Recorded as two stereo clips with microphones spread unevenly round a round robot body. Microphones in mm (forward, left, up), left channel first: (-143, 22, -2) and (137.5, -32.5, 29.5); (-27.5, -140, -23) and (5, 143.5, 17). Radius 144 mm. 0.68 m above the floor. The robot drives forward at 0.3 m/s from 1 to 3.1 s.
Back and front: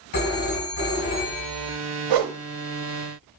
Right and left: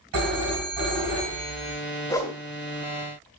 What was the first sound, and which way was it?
A phone ringing, 125° left.